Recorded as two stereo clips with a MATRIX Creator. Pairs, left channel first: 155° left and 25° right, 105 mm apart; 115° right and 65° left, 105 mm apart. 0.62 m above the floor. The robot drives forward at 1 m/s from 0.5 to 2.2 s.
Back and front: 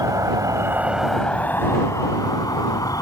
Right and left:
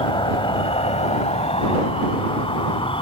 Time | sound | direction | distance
0.0 | an insect | 75° right | ?